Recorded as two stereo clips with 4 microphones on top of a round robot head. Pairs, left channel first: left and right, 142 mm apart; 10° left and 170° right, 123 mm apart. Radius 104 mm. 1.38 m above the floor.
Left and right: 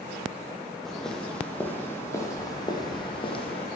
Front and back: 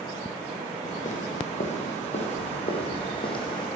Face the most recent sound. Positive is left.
turn(degrees=55)